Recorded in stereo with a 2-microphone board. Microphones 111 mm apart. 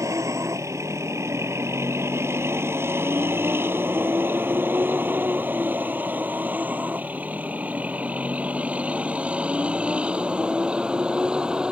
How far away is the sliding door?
I don't hear a sliding door.